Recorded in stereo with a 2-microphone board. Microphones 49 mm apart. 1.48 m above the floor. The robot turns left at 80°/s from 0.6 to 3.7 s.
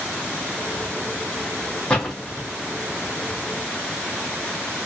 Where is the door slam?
25° left (ahead or behind), 2.5 m; by 2.5 s 20° right (ahead or behind), 2.5 m.